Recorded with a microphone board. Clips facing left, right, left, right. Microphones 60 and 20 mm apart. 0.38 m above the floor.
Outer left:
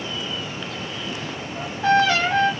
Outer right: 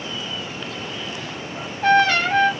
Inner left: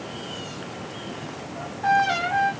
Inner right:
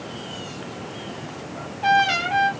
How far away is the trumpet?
About 3 m.